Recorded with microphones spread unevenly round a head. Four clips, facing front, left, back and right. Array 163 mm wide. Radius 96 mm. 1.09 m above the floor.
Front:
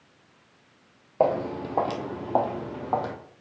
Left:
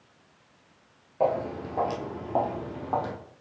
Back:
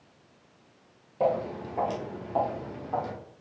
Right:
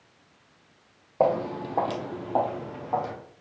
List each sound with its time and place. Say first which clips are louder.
1.2 s footsteps: right 2 dB, front 3 dB; 35° right, 1.7 m; by 3.1 s 10° left, 2.0 m